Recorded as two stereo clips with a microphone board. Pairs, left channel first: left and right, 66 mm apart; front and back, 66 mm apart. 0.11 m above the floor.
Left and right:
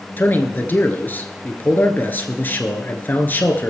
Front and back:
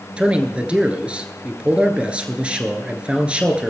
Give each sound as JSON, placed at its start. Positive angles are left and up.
{"t": 0.2, "sound": "a man speaking", "azimuth_deg": 120, "distance_m": 1.4}